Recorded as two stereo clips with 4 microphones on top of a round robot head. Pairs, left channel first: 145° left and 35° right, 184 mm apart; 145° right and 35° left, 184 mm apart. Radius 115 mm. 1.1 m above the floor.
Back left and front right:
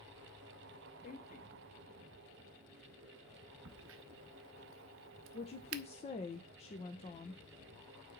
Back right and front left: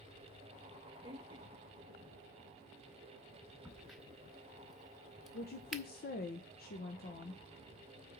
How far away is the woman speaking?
About 1.1 m.